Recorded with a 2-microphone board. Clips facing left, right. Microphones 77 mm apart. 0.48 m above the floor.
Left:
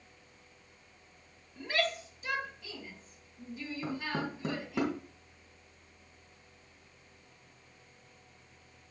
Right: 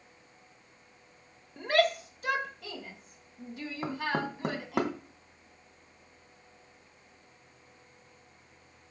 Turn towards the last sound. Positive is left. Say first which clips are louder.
# right 4 dB
turn(degrees=-70)  # may be behind; listen again after turning